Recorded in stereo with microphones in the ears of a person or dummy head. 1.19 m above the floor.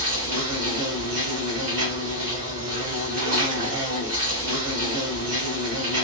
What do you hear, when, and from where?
0.0 s an insect: 45° right (ahead or behind), 1.3 m